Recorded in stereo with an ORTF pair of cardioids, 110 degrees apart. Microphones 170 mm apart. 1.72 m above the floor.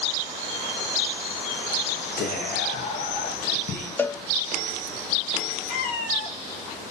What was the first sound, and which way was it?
Whispering, 60° left.